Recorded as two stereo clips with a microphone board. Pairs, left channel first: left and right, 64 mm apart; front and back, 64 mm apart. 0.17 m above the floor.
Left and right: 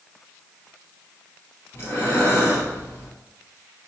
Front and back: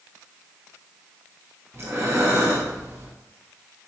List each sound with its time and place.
1.7 s breathing: 140° left, 1.6 m